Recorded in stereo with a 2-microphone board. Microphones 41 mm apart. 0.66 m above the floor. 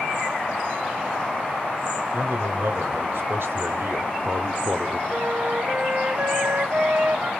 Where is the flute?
55° right (ahead or behind), 0.6 m.